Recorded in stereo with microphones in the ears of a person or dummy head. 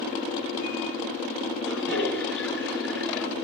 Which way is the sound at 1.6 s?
10° left (ahead or behind).